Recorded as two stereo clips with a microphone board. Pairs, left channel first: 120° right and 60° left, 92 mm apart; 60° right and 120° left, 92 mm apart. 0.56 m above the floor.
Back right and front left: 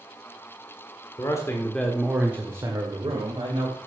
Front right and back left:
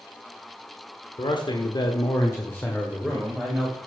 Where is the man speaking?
75° right, 1.4 m; by 3.8 s 35° left, 2.5 m.